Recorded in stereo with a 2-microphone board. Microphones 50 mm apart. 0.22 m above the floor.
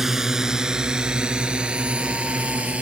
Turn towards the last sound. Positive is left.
turn(degrees=-25)  # may be behind; listen again after turning